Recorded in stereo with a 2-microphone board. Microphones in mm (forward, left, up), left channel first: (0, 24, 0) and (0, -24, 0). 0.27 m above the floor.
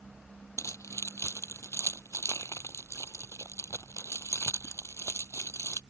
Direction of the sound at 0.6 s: 85° left.